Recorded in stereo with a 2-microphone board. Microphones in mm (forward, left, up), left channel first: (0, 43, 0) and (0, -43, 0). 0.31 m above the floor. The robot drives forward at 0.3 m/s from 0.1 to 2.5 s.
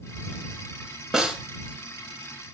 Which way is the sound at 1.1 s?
5° right (ahead or behind).